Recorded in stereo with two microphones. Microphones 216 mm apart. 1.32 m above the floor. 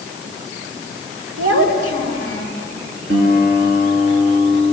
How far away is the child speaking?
About 5.5 m.